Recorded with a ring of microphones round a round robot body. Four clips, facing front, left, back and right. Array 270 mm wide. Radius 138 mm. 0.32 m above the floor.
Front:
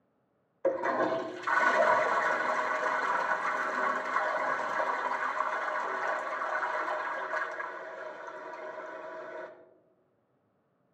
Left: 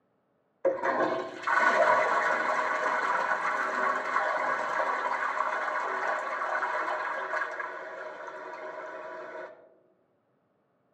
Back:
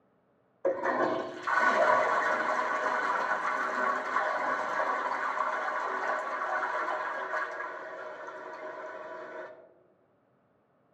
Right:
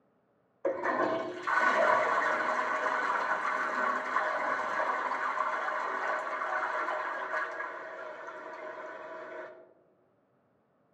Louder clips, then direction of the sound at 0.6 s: Left 3 dB, even; 65° left.